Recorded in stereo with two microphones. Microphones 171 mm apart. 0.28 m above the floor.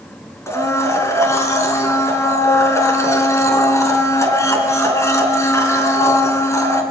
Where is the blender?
15° left (ahead or behind), 4 m.